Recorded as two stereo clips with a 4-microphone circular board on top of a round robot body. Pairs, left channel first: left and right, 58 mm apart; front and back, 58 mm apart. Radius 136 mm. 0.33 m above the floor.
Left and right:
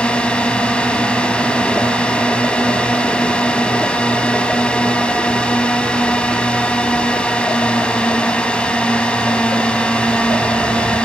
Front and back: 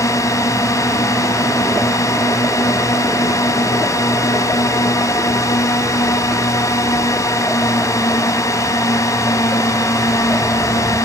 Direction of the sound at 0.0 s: 15° left.